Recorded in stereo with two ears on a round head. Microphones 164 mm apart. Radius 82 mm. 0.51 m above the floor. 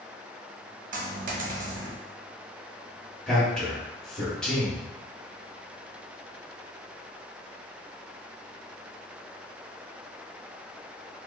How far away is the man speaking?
About 1.1 m.